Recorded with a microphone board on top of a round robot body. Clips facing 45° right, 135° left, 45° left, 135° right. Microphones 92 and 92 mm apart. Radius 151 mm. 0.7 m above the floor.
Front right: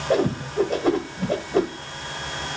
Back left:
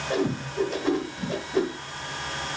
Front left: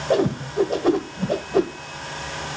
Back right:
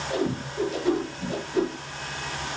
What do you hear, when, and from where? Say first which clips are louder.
0.1 s a whoosh: front right 5 dB, front left 8 dB; 5° left, 1.1 m